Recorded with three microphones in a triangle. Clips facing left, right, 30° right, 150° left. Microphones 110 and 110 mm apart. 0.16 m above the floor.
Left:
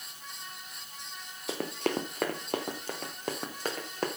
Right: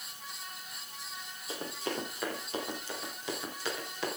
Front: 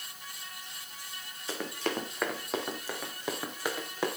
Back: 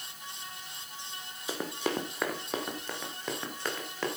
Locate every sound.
1.5 s running footsteps: 70° left, 2.5 m; by 4.1 s 45° left, 3.5 m